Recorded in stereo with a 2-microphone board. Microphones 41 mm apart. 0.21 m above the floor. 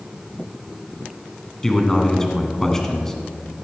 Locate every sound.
1.6 s a man speaking: 10° left (ahead or behind), 1.8 m